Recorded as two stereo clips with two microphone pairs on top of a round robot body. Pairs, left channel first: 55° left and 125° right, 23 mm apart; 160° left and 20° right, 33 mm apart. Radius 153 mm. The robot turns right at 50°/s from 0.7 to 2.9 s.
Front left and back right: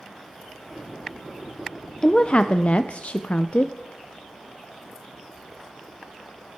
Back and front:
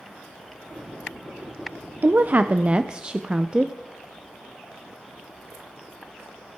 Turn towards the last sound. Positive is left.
turn(degrees=40)